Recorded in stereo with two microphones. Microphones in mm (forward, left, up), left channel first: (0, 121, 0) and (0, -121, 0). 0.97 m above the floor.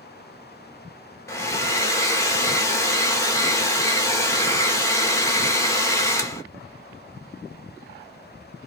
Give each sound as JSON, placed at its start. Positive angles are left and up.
{"t": 1.3, "sound": "a hair dryer", "side_deg": 15, "distance_m": 0.6}